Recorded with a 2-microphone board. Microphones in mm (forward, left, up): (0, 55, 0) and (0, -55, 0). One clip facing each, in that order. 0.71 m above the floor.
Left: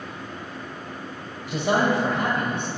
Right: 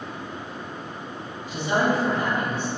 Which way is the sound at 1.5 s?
75° left (ahead or behind).